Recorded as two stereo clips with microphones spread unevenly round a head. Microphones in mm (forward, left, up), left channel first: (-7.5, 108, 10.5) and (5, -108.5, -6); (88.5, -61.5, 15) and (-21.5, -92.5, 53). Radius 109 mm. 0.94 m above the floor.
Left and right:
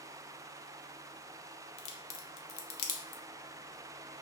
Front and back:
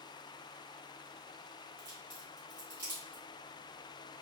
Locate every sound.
1.8 s a crack: 120° left, 0.5 m